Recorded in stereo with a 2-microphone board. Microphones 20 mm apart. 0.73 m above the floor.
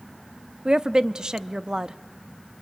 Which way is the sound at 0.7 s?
40° right (ahead or behind).